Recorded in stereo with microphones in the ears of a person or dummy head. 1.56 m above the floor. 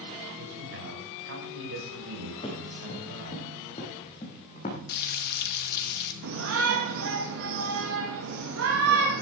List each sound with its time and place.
0.4 s a man speaking: 70° right (ahead or behind), 7 m
2.4 s running footsteps: 25° left (ahead or behind), 6.5 m; by 4.8 s 35° left (ahead or behind), 5 m
4.9 s frying: 60° left (ahead or behind), 2.0 m
6.2 s a shout: 80° right, 2.5 m